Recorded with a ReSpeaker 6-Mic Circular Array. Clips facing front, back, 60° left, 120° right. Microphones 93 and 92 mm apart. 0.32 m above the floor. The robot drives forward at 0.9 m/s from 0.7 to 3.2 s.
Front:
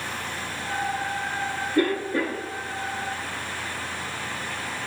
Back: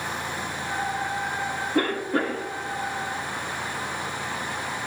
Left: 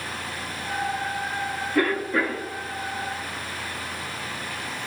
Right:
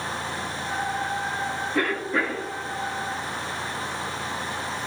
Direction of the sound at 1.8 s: 160° left.